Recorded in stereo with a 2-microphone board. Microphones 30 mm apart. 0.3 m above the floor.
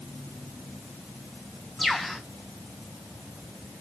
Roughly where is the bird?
Centre.